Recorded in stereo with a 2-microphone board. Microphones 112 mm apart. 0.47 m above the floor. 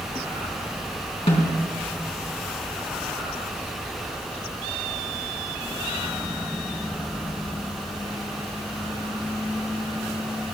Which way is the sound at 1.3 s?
65° left (ahead or behind).